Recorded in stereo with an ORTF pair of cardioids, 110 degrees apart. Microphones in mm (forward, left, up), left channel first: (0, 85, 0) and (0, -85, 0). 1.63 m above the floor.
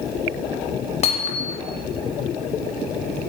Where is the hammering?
40° left, 3 m.